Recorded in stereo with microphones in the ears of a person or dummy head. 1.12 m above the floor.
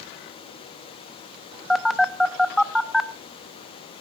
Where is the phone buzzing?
Centre (ahead or behind), 1.0 m.